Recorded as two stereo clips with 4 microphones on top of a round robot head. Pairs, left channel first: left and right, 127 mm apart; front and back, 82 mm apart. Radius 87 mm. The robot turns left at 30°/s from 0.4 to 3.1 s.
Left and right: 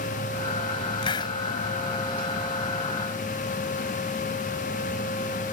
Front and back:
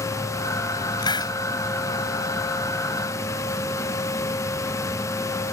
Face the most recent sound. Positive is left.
turn(degrees=-30)